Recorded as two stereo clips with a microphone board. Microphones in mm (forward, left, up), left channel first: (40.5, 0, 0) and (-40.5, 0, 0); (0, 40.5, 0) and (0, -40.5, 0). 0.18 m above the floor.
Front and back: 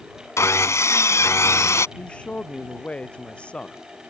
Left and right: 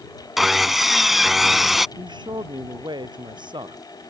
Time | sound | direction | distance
0.4 | sawing | 5° right | ?
2.0 | a man speaking | 75° right | ?